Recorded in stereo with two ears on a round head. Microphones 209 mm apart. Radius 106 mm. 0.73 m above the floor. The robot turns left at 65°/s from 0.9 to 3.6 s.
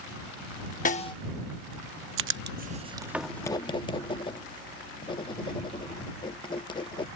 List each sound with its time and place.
0.8 s a snare drum: 30° left (ahead or behind); by 1.1 s 15° left (ahead or behind)
2.2 s writing: 60° right (ahead or behind); by 7.1 s 20° left (ahead or behind)